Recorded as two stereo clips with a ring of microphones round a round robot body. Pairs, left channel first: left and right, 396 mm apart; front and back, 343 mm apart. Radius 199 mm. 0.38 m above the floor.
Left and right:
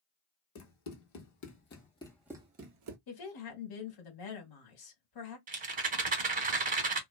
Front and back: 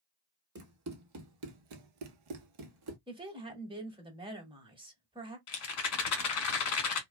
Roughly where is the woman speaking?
Left.